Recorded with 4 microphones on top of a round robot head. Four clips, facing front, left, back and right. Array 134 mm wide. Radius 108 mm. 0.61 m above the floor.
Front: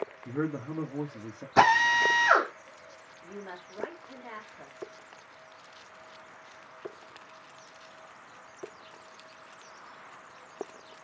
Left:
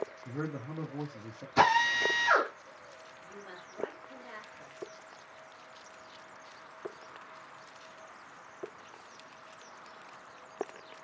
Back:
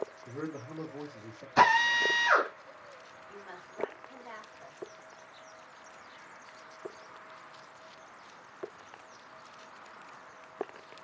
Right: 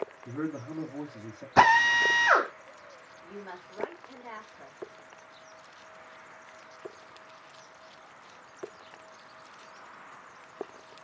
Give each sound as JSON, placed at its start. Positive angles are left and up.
{"t": 0.2, "sound": "a man speaking", "azimuth_deg": -5, "distance_m": 1.6}
{"t": 1.6, "sound": "a drill", "azimuth_deg": -50, "distance_m": 2.0}
{"t": 3.2, "sound": "a woman speaking", "azimuth_deg": -35, "distance_m": 2.0}